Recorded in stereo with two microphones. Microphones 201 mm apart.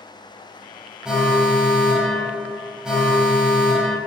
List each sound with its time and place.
1.1 s an alarm: 5° right (ahead or behind), 1.4 m